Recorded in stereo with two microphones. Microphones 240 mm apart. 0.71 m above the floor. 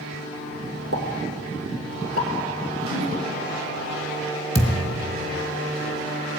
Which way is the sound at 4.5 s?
25° left (ahead or behind).